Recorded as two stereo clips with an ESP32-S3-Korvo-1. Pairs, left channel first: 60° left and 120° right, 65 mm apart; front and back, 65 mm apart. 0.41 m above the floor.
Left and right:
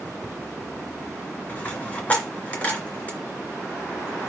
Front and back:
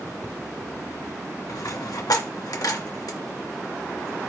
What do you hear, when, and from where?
1.5 s a dropped coin: 5° right, 3 m